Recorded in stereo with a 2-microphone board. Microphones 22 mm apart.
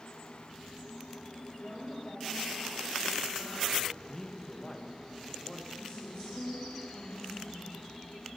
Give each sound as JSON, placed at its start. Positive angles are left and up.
{"t": 1.6, "sound": "a woman speaking", "side_deg": 65, "distance_m": 7.0}
{"t": 4.1, "sound": "a man speaking", "side_deg": 25, "distance_m": 1.5}
{"t": 5.8, "sound": "a woman speaking", "side_deg": 60, "distance_m": 4.5}